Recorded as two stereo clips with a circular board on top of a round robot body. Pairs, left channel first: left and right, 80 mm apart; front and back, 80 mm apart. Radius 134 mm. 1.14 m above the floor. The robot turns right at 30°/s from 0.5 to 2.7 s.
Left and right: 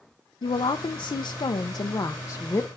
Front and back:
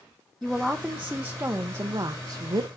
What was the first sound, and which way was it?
A woman speaking, 90° left.